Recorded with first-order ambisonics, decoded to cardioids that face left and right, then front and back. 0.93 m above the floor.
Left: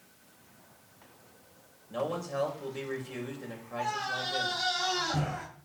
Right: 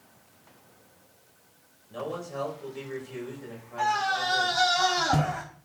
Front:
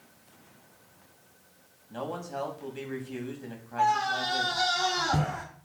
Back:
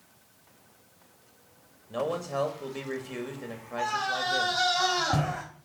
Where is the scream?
115° right, 4.5 m.